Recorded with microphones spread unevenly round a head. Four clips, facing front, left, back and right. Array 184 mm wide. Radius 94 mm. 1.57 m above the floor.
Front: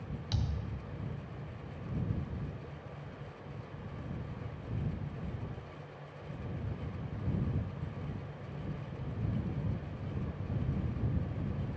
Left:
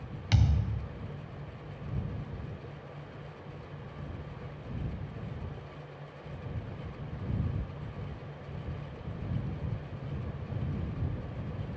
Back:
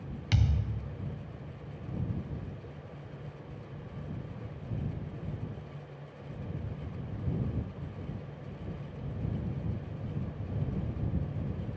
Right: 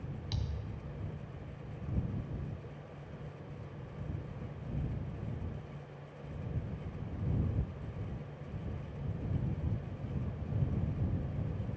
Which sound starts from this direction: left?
A thud, at 0.3 s.